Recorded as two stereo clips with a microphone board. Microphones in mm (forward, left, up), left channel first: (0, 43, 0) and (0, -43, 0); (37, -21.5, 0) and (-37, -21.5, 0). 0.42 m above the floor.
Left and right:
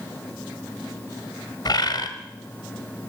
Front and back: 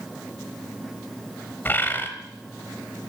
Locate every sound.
1.6 s a bird: 60° left, 1.1 m